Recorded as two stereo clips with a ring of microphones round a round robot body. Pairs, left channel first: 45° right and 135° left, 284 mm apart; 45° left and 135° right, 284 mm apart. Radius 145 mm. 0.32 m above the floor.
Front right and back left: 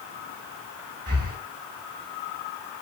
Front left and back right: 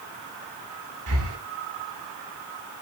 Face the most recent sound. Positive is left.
turn(degrees=-170)